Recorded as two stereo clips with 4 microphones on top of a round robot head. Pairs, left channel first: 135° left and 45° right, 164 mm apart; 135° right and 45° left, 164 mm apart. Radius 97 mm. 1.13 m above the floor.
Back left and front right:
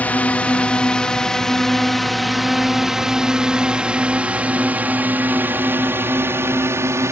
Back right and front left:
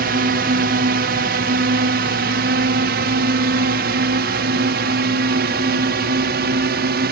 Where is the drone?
55° left; by 7.1 s 30° left.